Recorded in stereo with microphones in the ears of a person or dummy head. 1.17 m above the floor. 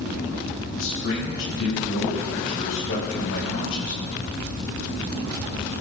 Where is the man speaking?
80° left, 5.5 m.